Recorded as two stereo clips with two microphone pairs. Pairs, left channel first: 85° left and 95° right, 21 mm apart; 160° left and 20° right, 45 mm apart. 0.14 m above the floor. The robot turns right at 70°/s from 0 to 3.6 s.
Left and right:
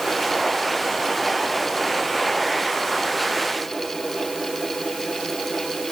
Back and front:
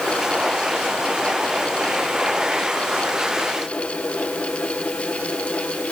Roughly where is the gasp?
I don't hear a gasp.